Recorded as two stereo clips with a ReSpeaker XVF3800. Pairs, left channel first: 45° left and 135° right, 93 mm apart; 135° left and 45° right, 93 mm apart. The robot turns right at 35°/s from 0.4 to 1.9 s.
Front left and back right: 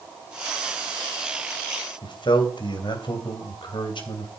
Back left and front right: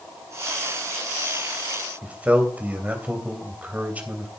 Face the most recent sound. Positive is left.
turn(degrees=25)